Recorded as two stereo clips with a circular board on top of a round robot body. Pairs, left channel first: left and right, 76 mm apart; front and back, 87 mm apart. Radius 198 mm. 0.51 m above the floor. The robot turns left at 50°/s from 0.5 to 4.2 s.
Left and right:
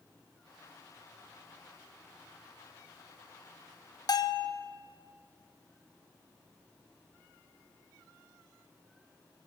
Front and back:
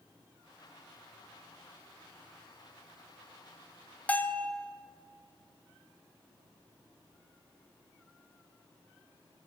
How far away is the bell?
About 1.6 m.